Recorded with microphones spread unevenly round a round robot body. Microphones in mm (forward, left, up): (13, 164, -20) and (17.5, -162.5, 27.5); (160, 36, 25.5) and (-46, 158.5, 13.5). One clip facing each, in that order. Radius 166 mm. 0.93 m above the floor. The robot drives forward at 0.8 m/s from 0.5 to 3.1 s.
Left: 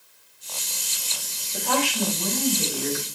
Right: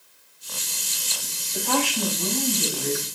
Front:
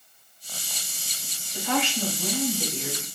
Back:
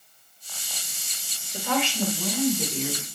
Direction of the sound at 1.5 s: 110° left.